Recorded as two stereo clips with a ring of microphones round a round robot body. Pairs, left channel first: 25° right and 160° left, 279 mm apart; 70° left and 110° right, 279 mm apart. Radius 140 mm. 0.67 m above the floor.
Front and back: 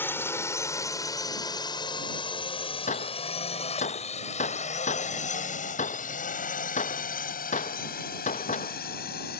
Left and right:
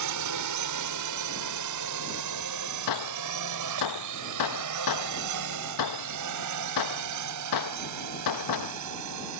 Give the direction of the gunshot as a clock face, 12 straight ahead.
10 o'clock.